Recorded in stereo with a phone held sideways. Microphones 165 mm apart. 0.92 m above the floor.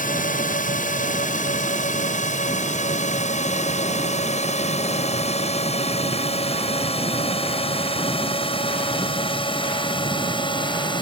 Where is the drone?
55° left (ahead or behind); by 11.0 s 30° left (ahead or behind).